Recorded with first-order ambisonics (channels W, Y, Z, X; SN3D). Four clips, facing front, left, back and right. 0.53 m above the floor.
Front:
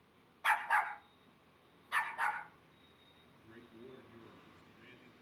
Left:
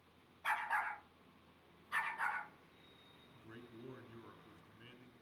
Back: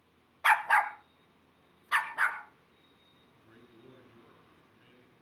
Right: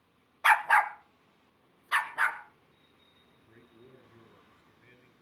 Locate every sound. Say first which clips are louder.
0.4 s a dog barking: right 15 dB, back 7 dB; 115° right, 0.7 m; by 2.4 s 130° right, 2 m
3.3 s a man speaking: left 4 dB, front 2 dB; 100° left, 8.5 m